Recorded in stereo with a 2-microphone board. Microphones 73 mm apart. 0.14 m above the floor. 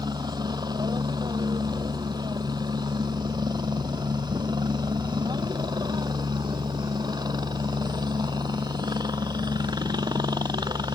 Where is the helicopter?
65° right (ahead or behind).